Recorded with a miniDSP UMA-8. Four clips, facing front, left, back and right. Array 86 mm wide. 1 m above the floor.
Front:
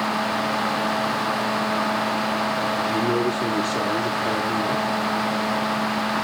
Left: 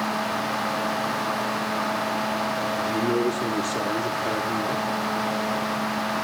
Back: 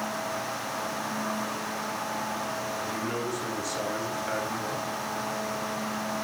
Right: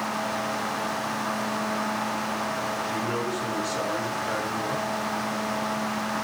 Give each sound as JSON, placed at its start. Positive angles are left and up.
{"t": 2.8, "sound": "a man speaking", "azimuth_deg": 35, "distance_m": 3.0}